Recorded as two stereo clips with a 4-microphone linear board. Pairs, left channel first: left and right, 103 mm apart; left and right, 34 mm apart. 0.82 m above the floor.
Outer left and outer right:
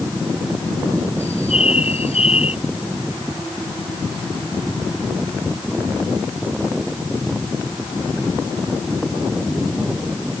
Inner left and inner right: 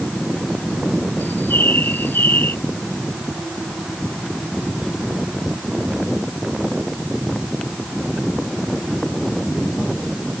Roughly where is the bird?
Left.